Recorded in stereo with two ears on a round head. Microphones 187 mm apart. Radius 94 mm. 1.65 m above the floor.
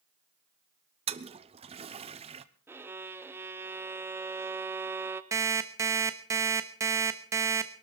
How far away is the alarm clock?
About 1.1 m.